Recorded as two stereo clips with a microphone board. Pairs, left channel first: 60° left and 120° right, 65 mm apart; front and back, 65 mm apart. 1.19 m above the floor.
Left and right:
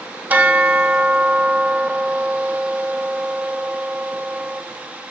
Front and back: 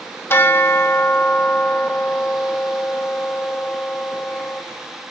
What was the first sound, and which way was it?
A bell, 55° right.